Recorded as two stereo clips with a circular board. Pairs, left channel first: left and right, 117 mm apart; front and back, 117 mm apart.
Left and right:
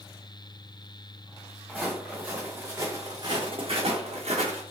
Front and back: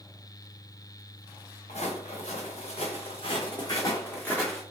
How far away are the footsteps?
About 1.3 m.